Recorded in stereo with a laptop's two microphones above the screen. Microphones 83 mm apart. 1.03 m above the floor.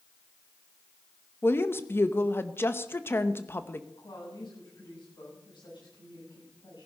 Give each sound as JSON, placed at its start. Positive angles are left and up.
{"t": 1.4, "sound": "a woman speaking", "side_deg": 30, "distance_m": 0.8}
{"t": 4.0, "sound": "a woman speaking", "side_deg": 75, "distance_m": 8.5}